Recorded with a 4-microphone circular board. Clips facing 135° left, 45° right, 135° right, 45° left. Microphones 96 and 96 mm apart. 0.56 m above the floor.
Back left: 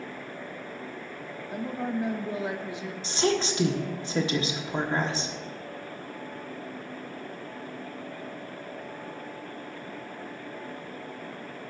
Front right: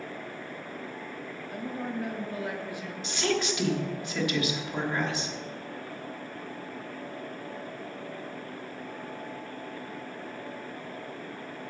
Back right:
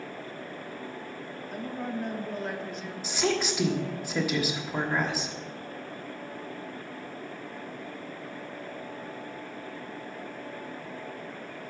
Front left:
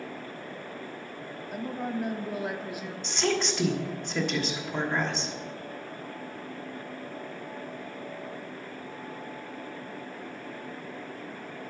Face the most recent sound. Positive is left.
turn(degrees=145)